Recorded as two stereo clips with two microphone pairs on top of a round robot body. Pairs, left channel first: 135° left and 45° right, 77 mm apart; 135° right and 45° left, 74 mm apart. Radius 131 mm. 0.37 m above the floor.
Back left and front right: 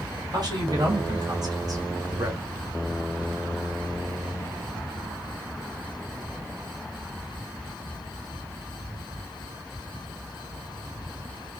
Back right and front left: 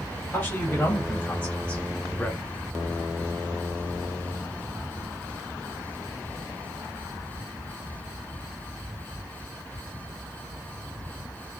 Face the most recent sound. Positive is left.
turn(degrees=-55)